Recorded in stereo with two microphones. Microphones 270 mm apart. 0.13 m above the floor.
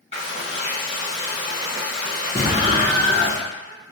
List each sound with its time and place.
0.1 s frying: 25° right (ahead or behind), 1.9 m
2.4 s an explosion: 35° right (ahead or behind), 0.9 m